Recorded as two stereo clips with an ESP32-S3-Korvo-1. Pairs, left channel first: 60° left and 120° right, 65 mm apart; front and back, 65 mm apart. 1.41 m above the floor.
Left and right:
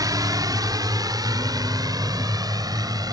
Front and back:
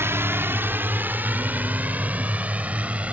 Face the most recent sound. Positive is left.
turn(degrees=-110)